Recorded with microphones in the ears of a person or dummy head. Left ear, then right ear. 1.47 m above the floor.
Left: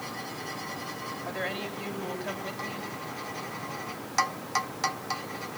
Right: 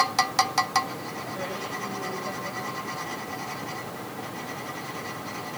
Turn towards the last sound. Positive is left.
turn(degrees=60)  # may be behind; listen again after turning